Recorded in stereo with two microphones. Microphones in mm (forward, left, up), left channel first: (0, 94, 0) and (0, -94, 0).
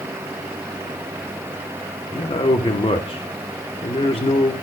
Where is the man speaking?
30° left (ahead or behind), 1.4 m.